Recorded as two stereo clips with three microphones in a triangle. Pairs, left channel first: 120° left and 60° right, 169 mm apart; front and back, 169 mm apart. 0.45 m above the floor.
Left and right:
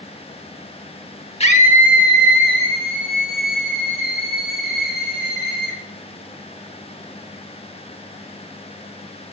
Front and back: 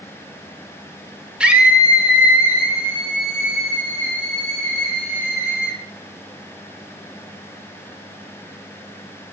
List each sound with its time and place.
1.4 s a scream: 100° left, 0.9 m